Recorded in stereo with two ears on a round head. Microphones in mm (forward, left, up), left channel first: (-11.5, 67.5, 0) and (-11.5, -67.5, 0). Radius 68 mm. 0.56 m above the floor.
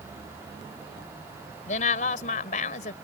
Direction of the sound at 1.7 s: 50° left (ahead or behind).